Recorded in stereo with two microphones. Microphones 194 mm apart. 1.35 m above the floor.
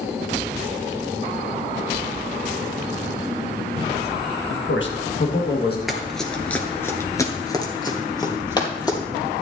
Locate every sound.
4.5 s a man speaking: 85° left, 1.5 m; by 5.8 s 55° left (ahead or behind), 1.9 m
5.9 s running footsteps: centre (ahead or behind), 1.6 m; by 9.0 s 20° left (ahead or behind), 2.5 m